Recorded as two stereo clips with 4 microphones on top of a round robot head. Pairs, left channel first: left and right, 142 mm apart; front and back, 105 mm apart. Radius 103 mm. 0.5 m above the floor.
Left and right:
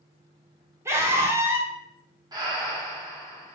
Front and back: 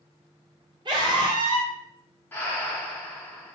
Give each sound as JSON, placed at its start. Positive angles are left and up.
{"t": 0.8, "sound": "a scream", "azimuth_deg": -155, "distance_m": 1.6}
{"t": 2.3, "sound": "breathing", "azimuth_deg": -55, "distance_m": 1.1}